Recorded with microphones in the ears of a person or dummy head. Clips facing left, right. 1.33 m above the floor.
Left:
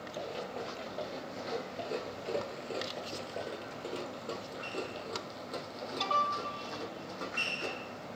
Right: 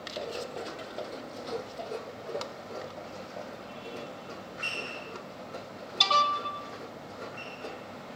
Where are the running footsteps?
20° right (ahead or behind), 1.5 m; by 8.1 s 70° left (ahead or behind), 4 m.